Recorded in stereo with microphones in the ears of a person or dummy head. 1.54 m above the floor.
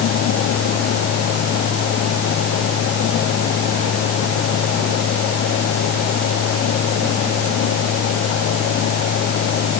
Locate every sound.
Only background noise.